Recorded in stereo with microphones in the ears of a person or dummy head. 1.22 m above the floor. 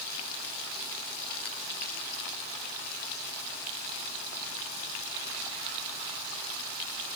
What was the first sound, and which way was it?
Only background noise.